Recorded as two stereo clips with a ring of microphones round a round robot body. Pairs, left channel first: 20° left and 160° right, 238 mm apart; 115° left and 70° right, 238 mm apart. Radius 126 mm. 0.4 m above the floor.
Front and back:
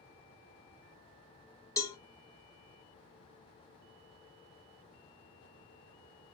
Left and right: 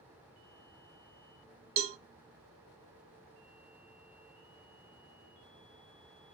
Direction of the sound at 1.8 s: 55° right.